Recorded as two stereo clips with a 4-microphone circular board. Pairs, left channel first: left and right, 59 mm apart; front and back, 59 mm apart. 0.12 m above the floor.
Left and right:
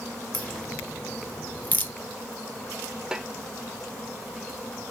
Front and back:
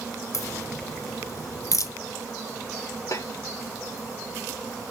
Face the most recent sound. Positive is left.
turn(degrees=-15)